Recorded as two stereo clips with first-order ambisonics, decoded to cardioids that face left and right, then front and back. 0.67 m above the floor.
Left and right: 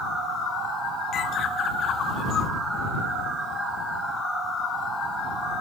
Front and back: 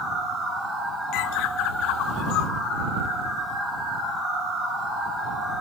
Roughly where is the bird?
Ahead left.